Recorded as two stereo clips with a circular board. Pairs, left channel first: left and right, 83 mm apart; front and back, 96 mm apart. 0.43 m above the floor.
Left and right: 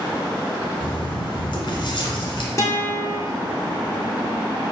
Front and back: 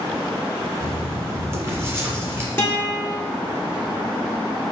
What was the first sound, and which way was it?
Writing, 115° left.